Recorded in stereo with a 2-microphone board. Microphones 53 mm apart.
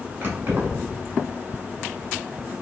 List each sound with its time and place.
0.2 s keys jangling: 40° right (ahead or behind), 1.1 m